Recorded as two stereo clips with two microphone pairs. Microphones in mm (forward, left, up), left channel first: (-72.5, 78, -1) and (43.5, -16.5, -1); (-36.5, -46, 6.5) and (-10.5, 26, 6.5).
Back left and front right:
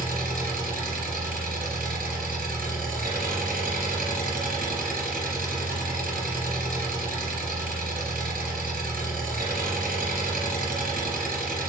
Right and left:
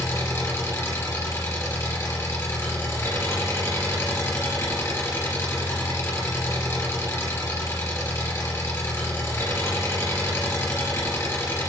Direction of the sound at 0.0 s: 50° right.